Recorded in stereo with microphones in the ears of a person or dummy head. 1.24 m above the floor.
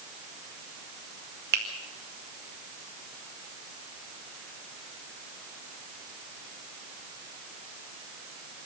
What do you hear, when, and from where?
1.5 s a finger snap: 50° right (ahead or behind), 2 m